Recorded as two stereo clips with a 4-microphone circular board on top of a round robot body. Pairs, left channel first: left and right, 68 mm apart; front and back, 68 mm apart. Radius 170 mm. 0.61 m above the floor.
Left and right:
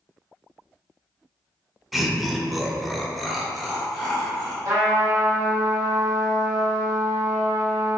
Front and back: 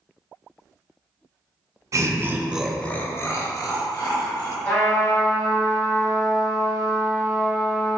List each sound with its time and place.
1.9 s laughter: 175° right, 0.6 m; by 4.5 s straight ahead, 1.1 m
4.7 s a trumpet: 60° right, 1.9 m